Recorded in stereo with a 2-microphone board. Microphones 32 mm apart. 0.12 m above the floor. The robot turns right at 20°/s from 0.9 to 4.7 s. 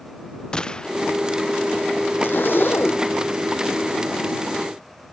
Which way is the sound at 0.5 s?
25° left (ahead or behind).